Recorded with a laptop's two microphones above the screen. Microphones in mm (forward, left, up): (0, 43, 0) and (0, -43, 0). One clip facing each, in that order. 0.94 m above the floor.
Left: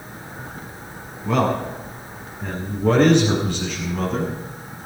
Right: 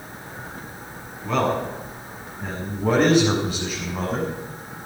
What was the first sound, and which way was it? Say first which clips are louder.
A man speaking: left 2 dB; centre (ahead or behind).